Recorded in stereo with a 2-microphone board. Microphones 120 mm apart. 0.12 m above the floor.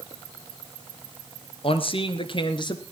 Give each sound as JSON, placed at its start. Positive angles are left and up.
{"t": 1.6, "sound": "a man speaking", "side_deg": 50, "distance_m": 2.0}